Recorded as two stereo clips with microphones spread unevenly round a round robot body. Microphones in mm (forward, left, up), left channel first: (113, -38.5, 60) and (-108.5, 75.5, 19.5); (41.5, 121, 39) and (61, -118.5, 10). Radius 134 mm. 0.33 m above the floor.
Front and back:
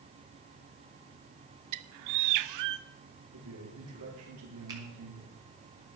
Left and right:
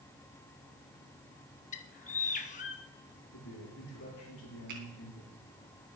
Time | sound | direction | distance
1.7 | a bird | 160° left | 0.6 m
3.3 | a man speaking | 135° left | 7.5 m
4.7 | a finger snap | 135° right | 3 m